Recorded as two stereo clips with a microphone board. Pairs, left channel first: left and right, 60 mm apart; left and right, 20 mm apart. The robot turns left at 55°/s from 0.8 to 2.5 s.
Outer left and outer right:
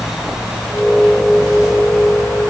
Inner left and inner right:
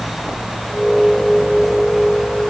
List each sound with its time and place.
Only background noise.